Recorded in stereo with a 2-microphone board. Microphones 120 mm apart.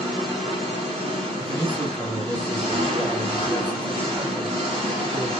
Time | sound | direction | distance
0.0 | an engine running | 55° right (ahead or behind) | 1.3 m
1.4 | a man speaking | 35° right (ahead or behind) | 1.3 m